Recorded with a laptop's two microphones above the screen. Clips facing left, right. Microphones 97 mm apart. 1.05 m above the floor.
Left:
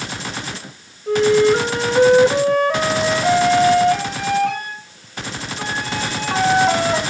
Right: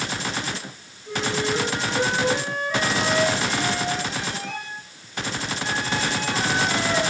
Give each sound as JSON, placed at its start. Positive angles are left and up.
{"t": 1.1, "sound": "a flute", "side_deg": 70, "distance_m": 3.0}